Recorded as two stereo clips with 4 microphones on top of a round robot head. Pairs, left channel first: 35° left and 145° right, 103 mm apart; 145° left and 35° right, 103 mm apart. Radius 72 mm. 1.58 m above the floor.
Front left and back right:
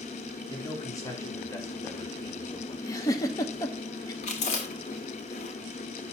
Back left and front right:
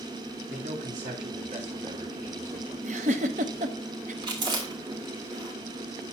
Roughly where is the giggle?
Ahead right.